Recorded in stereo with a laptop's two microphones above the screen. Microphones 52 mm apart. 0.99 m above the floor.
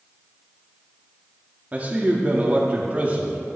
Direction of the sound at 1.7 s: 35° right (ahead or behind).